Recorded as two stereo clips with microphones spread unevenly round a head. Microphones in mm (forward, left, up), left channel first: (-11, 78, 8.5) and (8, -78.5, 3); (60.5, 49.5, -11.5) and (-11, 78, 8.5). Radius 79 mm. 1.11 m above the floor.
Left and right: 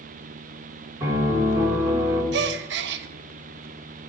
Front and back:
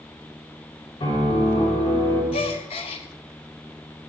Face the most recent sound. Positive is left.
turn(degrees=-60)